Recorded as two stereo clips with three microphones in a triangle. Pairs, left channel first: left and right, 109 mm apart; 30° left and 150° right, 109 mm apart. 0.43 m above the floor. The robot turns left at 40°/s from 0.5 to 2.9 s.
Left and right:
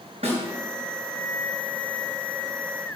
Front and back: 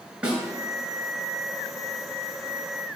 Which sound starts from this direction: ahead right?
A snare drum, at 0.2 s.